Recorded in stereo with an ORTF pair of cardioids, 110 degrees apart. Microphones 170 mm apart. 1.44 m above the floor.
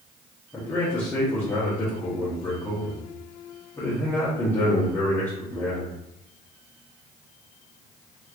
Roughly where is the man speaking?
Ahead.